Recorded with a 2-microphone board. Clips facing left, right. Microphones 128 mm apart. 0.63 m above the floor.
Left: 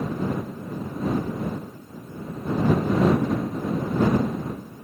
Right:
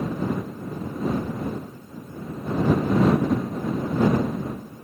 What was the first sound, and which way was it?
Only background noise.